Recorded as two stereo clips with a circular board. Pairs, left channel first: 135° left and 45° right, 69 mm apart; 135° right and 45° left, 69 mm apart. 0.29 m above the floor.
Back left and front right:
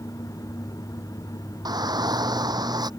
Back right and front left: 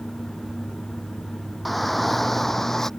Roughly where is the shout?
Ahead right.